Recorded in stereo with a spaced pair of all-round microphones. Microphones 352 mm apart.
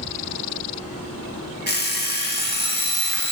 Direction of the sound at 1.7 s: 30° left (ahead or behind).